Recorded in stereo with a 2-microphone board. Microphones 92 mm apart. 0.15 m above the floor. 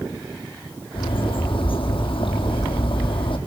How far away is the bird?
About 3.5 m.